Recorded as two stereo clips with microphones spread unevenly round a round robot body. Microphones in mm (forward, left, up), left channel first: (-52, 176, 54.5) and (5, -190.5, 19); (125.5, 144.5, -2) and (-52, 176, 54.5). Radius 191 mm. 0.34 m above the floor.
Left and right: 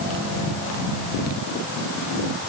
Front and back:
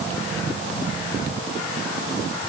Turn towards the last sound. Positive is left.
No sound to turn to.